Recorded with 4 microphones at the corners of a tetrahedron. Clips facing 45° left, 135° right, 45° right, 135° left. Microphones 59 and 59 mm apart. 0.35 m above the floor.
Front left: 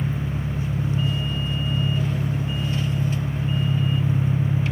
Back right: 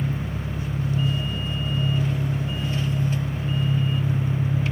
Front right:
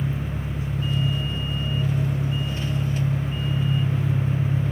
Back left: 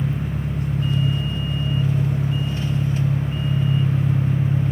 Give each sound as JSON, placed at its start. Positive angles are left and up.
{"t": 0.0, "sound": "an engine running", "azimuth_deg": 105, "distance_m": 1.3}